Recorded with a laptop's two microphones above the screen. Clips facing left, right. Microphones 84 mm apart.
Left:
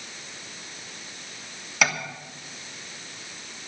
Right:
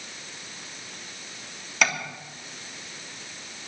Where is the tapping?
Centre (ahead or behind), 3 m.